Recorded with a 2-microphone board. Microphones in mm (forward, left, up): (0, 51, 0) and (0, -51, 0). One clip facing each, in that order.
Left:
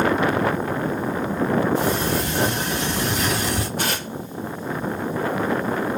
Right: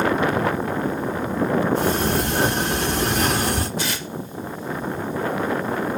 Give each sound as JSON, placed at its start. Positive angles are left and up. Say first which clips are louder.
{"t": 1.8, "sound": "a sliding door", "louder": "right 1 dB", "side_deg": -60, "distance_m": 2.5}
{"t": 3.8, "sound": "tearing paper", "louder": "left 2 dB", "side_deg": 55, "distance_m": 0.7}